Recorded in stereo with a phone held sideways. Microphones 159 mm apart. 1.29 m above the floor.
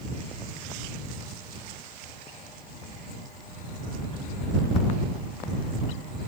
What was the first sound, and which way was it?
Only background noise.